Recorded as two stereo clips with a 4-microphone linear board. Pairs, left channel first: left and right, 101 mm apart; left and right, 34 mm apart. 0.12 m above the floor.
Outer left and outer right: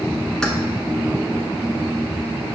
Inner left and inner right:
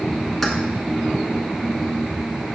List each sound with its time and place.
0.4 s keys jangling: 5° left (ahead or behind), 0.7 m